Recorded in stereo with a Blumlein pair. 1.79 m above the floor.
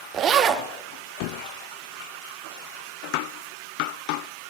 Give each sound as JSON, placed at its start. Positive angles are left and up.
{"t": 0.1, "sound": "a zipper", "azimuth_deg": -25, "distance_m": 1.3}